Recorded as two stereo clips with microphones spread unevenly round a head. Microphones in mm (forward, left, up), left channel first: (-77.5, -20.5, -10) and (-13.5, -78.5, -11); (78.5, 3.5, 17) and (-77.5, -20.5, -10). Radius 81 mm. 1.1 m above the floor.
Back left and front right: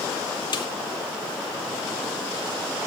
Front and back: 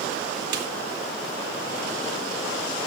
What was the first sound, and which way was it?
A snare drum, 170° left.